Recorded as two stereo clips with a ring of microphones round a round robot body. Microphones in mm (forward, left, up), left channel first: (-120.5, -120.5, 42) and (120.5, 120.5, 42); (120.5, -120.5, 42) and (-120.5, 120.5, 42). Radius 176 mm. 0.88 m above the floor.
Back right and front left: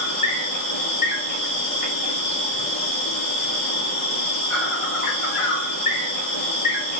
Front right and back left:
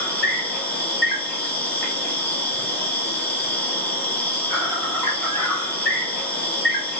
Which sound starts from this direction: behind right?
An insect, at 0.0 s.